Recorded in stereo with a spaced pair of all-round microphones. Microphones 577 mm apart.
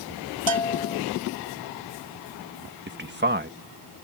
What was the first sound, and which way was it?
A bell, 55° right (ahead or behind).